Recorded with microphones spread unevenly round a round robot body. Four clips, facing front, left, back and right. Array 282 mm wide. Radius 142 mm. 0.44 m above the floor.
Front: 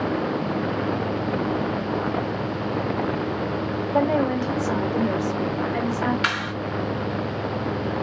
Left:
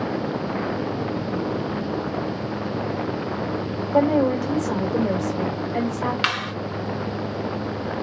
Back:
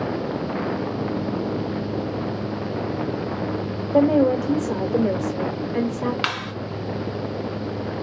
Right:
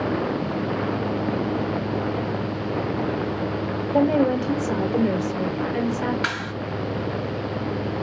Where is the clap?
135° left, 3.5 m.